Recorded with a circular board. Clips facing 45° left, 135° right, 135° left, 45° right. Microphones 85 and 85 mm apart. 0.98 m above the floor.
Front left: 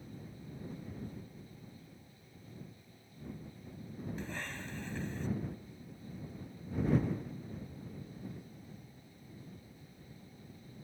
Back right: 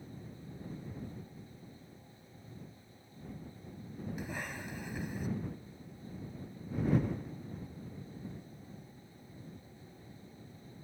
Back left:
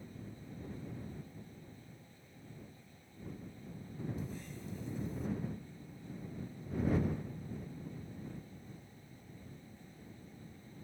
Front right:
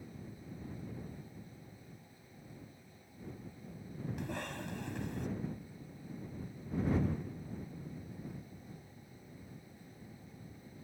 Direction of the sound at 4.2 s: 55° right.